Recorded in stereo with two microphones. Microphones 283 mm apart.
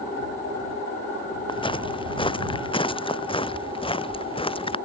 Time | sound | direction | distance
1.5 | footsteps | 20° left (ahead or behind) | ?